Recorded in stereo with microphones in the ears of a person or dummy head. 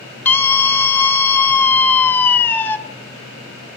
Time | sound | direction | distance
0.2 | a scream | 5° left (ahead or behind) | 1.5 m